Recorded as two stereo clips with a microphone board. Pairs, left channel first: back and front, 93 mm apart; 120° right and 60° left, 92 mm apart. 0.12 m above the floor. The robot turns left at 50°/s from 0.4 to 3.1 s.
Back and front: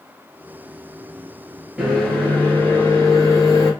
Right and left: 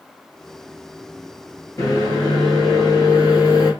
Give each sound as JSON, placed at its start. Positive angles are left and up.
{"t": 1.8, "sound": "a microwave", "azimuth_deg": -80, "distance_m": 1.6}